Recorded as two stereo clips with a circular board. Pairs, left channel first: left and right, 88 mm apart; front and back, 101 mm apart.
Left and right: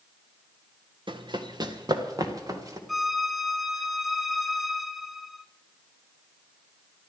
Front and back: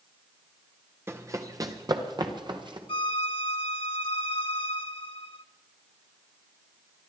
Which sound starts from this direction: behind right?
Running footsteps, at 1.1 s.